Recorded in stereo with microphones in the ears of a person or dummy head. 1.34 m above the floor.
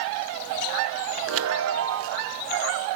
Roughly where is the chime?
Right.